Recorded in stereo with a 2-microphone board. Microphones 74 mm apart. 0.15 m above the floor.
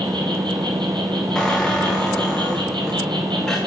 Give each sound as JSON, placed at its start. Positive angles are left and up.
{"t": 0.0, "sound": "an insect", "side_deg": -85, "distance_m": 1.1}
{"t": 1.4, "sound": "a squeak", "side_deg": 5, "distance_m": 1.3}